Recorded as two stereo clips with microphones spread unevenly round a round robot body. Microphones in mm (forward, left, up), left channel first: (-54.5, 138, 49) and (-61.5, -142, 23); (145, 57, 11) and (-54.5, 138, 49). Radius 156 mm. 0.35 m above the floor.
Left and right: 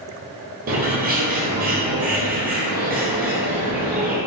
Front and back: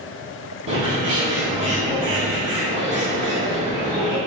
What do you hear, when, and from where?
0.7 s a bird: 150° right, 1.6 m